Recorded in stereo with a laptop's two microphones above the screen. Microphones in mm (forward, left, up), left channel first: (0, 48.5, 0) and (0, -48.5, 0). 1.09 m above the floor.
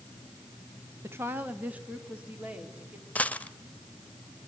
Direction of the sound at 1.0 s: 25° right (ahead or behind).